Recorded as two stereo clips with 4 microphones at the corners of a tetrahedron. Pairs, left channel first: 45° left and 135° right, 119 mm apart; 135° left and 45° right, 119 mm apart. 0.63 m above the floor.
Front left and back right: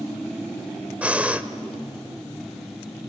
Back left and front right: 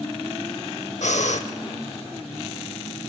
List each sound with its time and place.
1.0 s breathing: 145° left, 0.9 m